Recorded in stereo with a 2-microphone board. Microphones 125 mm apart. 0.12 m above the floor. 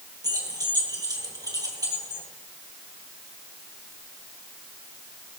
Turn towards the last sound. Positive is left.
turn(degrees=-30)  # may be behind; listen again after turning